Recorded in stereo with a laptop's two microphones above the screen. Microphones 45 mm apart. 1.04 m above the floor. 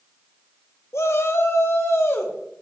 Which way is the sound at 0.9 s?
80° left.